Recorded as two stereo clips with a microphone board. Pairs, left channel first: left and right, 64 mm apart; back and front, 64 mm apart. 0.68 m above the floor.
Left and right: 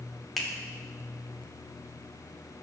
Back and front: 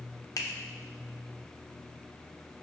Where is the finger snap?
Straight behind, 1.2 m.